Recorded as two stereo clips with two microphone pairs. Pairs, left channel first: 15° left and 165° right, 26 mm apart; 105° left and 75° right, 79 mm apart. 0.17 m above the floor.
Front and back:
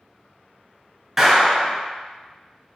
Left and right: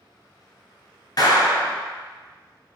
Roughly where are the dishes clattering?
No dishes clattering in this recording.